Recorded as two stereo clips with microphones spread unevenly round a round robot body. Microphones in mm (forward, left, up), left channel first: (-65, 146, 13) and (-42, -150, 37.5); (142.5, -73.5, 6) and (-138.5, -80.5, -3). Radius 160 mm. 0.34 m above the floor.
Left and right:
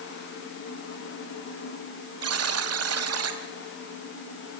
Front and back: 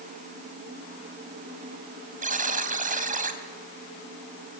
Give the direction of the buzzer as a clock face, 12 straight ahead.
4 o'clock.